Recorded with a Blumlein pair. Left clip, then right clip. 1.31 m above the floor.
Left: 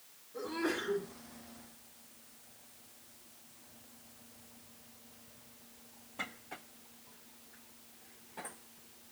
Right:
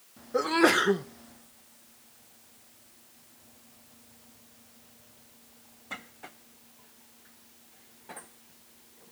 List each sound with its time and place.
0.3 s a sneeze: 40° right, 0.5 m